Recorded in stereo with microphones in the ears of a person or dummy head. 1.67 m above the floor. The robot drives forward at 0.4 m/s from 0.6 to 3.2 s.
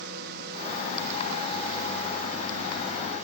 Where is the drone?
60° right (ahead or behind); by 3.2 s 45° right (ahead or behind).